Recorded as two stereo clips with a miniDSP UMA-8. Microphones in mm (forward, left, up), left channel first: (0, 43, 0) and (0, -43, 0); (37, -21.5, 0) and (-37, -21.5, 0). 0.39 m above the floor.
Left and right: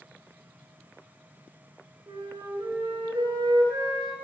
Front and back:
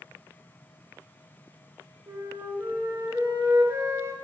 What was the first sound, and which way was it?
A flute, 130° right.